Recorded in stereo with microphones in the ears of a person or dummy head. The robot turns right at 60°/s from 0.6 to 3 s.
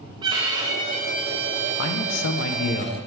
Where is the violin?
150° right, 1.0 m; by 2.8 s 20° right, 1.0 m.